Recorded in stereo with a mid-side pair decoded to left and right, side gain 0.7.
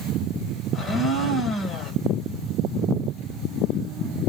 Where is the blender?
25° left, 2.5 m.